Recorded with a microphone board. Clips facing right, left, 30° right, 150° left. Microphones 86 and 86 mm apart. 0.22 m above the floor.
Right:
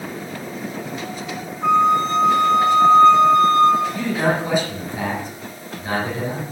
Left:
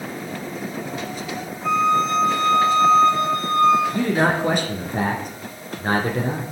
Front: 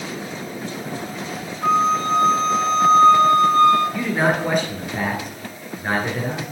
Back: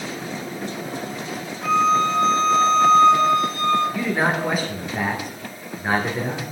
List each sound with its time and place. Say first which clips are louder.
1.6 s a flute: right 3 dB, even; 70° right, 7 m
3.9 s a man speaking: left 1 dB, front 2 dB; 60° left, 2.5 m